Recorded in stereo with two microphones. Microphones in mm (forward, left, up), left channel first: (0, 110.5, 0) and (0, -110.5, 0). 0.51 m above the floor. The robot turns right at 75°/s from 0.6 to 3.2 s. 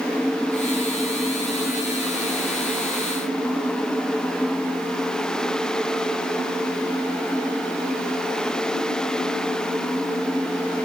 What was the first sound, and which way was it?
Only background noise.